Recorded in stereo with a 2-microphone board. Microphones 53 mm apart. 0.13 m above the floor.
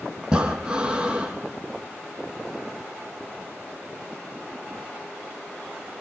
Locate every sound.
0.2 s breathing: 15° right (ahead or behind), 4 m